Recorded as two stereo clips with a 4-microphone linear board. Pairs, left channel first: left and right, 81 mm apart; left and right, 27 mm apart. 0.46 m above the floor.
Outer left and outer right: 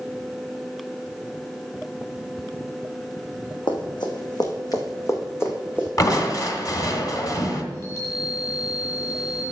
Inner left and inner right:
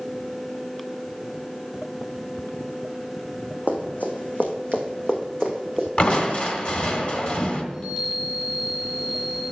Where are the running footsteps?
75° left (ahead or behind), 1.8 m; by 5.9 s 20° left (ahead or behind), 2 m.